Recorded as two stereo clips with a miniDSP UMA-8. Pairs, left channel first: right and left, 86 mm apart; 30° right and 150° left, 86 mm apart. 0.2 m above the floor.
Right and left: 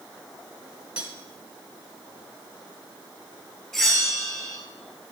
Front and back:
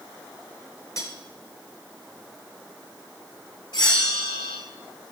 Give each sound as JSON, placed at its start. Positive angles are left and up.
{"t": 1.0, "sound": "cutlery clinking", "azimuth_deg": 20, "distance_m": 1.2}
{"t": 3.7, "sound": "a bell", "azimuth_deg": -5, "distance_m": 1.6}